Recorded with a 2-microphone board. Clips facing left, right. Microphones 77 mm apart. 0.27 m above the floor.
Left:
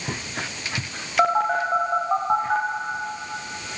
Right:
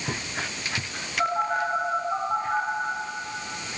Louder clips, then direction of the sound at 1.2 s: Left 5 dB; 85° left.